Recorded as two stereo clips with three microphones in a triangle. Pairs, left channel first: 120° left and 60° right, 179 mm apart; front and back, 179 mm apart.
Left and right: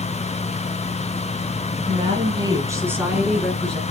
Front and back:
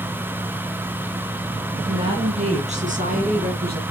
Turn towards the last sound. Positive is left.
turn(degrees=-160)